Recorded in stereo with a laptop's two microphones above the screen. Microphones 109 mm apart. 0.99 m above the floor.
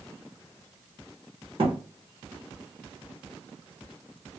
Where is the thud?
60° right (ahead or behind), 1.1 m.